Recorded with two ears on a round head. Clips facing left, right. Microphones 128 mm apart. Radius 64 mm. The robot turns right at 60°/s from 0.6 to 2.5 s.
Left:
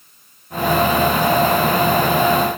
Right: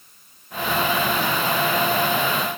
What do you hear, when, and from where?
Only background noise.